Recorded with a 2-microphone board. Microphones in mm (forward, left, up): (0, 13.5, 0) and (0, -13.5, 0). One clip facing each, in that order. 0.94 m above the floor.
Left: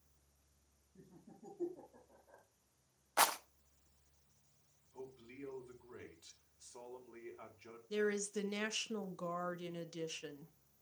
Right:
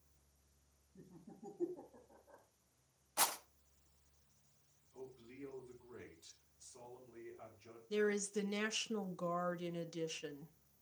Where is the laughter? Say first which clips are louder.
Right 2 dB; 5° left (ahead or behind), 5 m.